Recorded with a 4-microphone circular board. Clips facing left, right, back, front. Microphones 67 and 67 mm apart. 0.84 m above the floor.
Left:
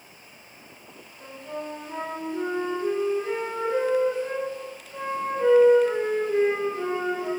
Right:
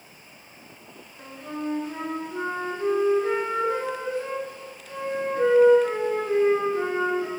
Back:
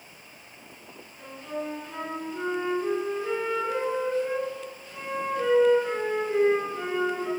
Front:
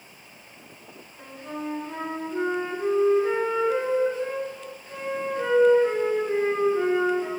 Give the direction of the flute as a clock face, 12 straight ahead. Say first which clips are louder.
Right 2 dB, even; 2 o'clock.